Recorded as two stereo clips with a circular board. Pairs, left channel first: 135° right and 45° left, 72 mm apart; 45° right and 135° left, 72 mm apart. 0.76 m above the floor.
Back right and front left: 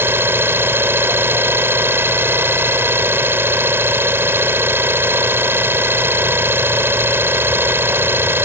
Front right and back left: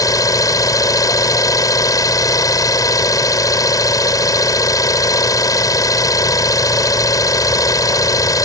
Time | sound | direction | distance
0.0 | an engine running | 10° right | ?